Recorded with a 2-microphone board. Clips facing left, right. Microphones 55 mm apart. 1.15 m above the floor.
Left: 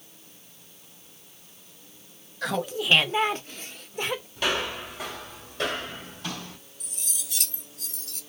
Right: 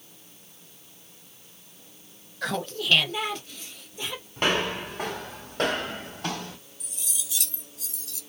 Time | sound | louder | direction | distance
2.4 | laughter | left 2 dB | centre (ahead or behind) | 0.7 m
4.4 | footsteps | right 4 dB | 45° right (ahead or behind) | 1.8 m
6.8 | cutlery clinking | even | 55° left (ahead or behind) | 0.9 m